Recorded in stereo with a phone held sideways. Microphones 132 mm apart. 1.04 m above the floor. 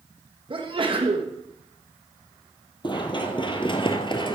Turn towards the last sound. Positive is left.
turn(degrees=35)  # may be behind; listen again after turning